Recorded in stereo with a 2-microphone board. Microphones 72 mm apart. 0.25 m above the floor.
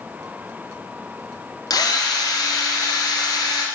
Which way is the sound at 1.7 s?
65° left (ahead or behind).